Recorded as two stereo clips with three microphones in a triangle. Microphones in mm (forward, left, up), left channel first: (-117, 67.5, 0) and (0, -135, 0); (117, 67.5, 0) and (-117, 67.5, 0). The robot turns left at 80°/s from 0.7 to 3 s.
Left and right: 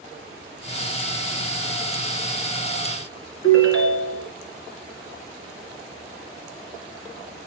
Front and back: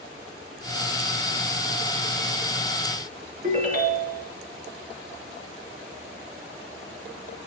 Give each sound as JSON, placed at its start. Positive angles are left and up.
{"t": 3.4, "sound": "a ringtone", "azimuth_deg": 125, "distance_m": 2.0}